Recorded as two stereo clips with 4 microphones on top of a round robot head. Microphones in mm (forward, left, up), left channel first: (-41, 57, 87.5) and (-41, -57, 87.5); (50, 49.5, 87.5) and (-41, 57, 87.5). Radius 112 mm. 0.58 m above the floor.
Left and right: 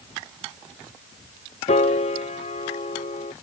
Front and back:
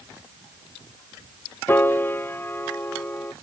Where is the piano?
60° left.